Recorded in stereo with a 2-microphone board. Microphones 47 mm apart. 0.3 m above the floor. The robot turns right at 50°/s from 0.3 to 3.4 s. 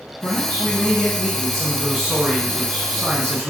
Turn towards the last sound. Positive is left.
turn(degrees=-90)